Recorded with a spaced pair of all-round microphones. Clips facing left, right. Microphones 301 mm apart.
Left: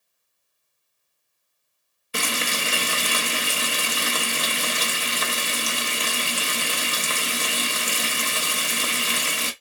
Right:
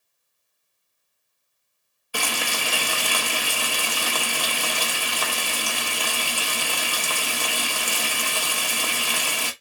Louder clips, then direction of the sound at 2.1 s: Left 1 dB; 25° left (ahead or behind).